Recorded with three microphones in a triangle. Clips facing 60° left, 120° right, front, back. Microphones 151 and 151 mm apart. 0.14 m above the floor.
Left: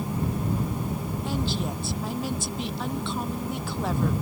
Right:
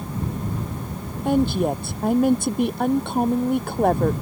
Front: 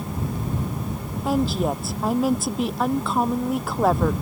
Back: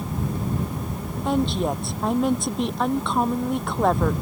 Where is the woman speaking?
85° right.